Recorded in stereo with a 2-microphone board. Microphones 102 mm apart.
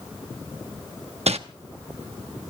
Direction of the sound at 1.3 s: 75° right (ahead or behind).